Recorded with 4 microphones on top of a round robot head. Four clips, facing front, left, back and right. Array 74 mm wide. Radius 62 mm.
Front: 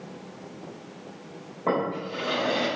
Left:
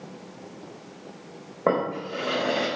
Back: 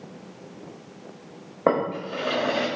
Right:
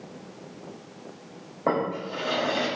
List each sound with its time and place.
1.7 s a drawer: 160° left, 1.2 m